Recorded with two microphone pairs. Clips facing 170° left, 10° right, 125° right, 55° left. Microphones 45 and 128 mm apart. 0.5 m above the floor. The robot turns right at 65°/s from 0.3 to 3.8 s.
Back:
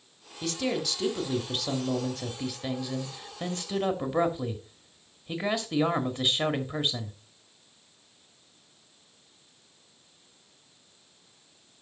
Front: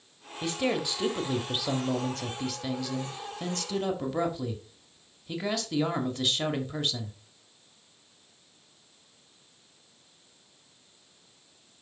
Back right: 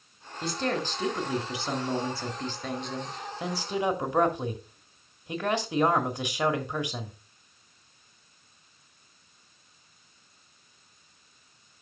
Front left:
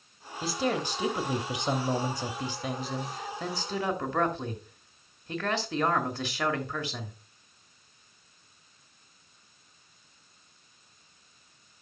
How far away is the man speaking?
About 1.4 m.